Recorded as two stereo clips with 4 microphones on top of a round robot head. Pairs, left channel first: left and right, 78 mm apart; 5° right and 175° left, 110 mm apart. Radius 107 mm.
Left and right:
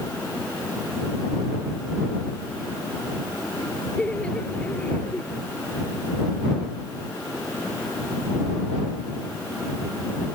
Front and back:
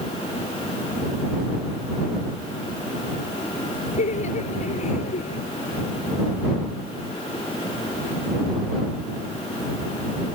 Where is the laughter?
10° left; by 5.4 s 15° left.